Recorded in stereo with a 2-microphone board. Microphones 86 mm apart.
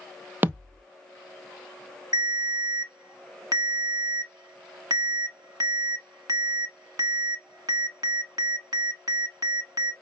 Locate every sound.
0.4 s a thud: 25° right (ahead or behind), 0.6 m
2.1 s a ringtone: 45° right (ahead or behind), 0.9 m